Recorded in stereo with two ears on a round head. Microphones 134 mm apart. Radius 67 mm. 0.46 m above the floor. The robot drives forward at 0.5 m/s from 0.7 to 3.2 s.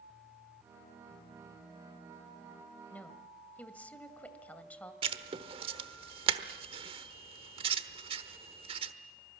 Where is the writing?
35° right (ahead or behind), 1.2 m.